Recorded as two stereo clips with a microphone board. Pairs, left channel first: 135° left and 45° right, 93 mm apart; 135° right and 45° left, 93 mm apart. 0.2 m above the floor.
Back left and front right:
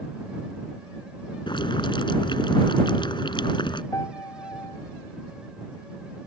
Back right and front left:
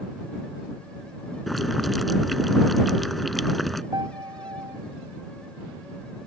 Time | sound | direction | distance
1.5 | boiling | 135° left | ?
3.9 | a piano | 80° left | ?